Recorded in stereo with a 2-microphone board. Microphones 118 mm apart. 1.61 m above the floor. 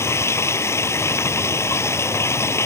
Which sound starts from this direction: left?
Running water, at 0.0 s.